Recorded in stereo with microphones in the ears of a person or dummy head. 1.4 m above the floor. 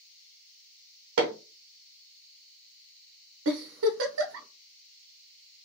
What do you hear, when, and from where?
1.2 s hammering: 75° right (ahead or behind), 0.8 m
3.5 s a giggle: 75° right (ahead or behind), 0.8 m